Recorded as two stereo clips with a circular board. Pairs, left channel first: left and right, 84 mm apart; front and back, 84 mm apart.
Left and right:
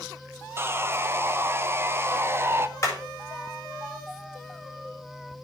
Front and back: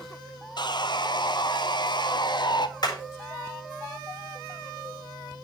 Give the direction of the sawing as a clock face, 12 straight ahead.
1 o'clock.